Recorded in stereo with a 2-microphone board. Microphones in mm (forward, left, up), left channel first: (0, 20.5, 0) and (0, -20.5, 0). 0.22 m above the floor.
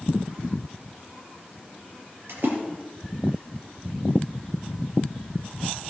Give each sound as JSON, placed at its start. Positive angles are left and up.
{"t": 2.3, "sound": "a splash", "side_deg": -70, "distance_m": 6.0}